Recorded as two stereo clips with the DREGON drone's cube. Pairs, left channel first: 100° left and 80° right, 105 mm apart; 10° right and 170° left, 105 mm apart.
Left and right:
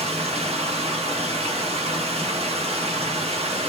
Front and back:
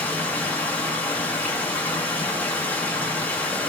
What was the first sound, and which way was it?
Running water, 90° right.